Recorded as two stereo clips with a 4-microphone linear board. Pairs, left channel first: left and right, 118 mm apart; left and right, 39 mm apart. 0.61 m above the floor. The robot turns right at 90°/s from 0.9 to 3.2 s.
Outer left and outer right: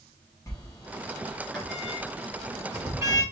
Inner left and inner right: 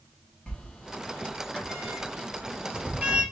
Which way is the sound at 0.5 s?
25° left (ahead or behind).